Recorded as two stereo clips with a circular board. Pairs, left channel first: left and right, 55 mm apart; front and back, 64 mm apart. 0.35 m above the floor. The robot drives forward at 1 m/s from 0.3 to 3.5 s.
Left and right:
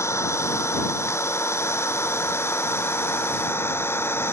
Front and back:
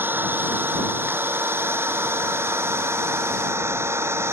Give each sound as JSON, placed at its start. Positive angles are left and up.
{"t": 0.0, "sound": "an engine running", "azimuth_deg": 125}